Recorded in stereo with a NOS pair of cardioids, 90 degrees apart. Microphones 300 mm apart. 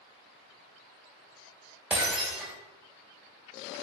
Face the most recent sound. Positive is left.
turn(degrees=-5)